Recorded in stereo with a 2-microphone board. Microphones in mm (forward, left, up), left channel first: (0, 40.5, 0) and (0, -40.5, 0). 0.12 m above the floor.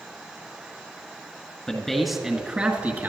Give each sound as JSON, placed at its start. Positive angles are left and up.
{"t": 1.7, "sound": "a man speaking", "side_deg": 10, "distance_m": 1.8}